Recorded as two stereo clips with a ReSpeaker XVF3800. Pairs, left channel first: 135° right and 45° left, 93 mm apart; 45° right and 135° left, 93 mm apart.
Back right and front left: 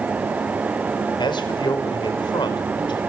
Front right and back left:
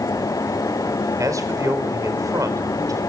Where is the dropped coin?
I don't hear a dropped coin.